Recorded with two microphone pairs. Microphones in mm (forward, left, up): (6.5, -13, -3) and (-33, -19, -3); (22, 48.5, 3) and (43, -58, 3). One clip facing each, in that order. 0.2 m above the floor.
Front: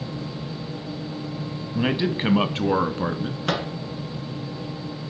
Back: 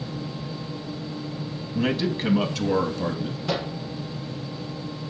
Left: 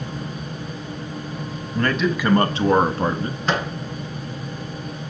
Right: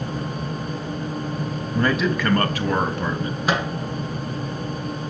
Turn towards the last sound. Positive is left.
turn(degrees=0)